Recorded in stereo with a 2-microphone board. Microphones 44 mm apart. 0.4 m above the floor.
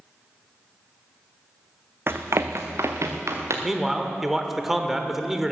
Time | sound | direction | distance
2.1 | running footsteps | 50° right (ahead or behind) | 1.0 m
3.6 | a man speaking | 5° right (ahead or behind) | 1.1 m